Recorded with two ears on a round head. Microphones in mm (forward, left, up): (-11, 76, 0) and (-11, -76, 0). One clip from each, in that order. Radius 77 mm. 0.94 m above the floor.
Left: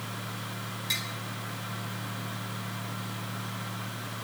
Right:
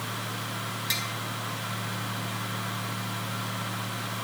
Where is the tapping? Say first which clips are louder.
Right 1 dB; 5° right (ahead or behind), 3.5 m.